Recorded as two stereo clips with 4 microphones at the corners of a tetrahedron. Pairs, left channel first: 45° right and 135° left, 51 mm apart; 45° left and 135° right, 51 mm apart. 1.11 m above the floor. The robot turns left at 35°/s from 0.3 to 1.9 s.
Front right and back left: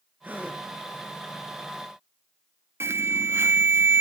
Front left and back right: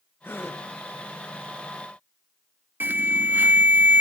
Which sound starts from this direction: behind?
An alarm, at 2.8 s.